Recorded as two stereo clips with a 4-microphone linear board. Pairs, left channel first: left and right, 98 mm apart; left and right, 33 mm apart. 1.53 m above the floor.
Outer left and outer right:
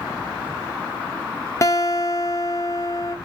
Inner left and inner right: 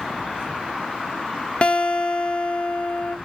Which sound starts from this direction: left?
A guitar, at 1.6 s.